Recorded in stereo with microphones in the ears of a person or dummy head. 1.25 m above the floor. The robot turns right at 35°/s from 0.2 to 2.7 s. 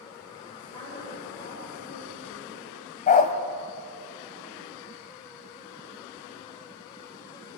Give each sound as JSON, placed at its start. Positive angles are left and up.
{"t": 0.5, "sound": "a woman speaking", "azimuth_deg": 15, "distance_m": 6.5}
{"t": 3.1, "sound": "a dog barking", "side_deg": 40, "distance_m": 1.6}